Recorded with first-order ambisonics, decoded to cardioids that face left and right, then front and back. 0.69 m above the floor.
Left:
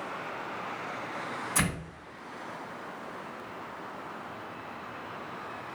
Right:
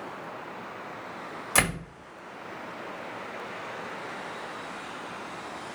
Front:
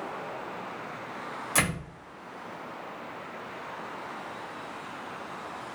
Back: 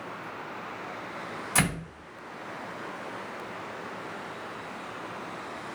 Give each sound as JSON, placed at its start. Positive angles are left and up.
{"t": 1.6, "sound": "a door slam", "azimuth_deg": -80, "distance_m": 2.0}